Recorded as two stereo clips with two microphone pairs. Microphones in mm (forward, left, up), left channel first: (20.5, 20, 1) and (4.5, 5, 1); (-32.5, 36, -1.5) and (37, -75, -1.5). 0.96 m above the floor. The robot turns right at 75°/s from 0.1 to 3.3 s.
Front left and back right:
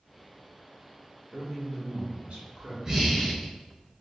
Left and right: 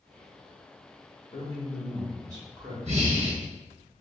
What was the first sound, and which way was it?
A man speaking, 160° left.